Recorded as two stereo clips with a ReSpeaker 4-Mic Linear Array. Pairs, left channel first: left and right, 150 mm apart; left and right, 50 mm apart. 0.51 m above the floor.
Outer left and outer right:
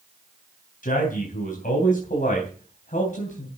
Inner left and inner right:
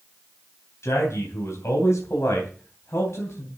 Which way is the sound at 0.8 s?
75° left (ahead or behind).